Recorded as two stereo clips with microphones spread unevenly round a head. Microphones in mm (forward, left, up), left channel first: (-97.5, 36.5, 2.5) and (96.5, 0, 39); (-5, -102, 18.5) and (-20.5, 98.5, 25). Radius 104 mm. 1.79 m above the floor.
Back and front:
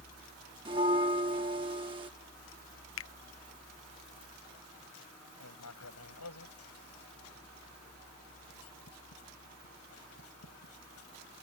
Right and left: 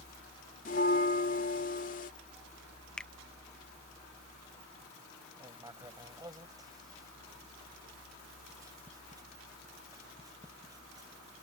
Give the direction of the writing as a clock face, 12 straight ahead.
6 o'clock.